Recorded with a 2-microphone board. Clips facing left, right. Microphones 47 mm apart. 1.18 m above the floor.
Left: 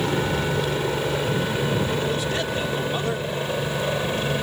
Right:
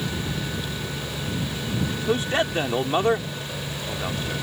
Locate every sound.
0.0 s a helicopter: 55° left (ahead or behind); by 4.4 s 40° left (ahead or behind)
2.1 s a man speaking: 30° right (ahead or behind)